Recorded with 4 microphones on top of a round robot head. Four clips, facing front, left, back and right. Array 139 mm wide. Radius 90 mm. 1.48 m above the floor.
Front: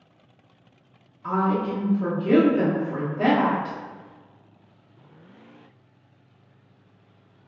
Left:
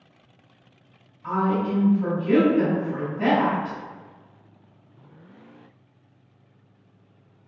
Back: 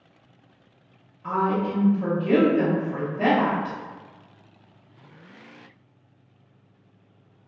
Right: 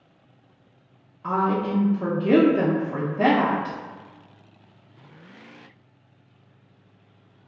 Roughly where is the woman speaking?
Right.